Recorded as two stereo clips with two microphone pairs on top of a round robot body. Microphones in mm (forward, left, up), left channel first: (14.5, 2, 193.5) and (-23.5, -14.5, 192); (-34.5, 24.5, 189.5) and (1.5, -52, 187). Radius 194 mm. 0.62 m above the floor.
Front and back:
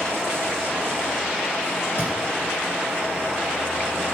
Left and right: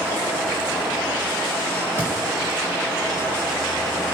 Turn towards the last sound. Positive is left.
turn(degrees=-125)